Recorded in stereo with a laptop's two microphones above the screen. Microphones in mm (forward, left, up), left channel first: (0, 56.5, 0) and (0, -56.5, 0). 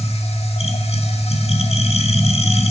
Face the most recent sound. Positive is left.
turn(degrees=65)  # may be behind; listen again after turning